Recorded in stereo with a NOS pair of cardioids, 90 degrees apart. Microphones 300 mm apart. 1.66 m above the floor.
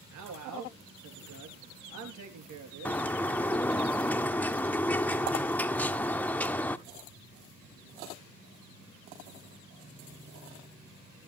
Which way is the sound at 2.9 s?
5° left.